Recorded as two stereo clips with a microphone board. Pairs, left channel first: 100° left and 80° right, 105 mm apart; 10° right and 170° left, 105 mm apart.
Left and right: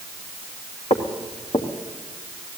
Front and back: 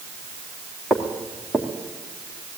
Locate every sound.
0.9 s footsteps: 75° left, 3.5 m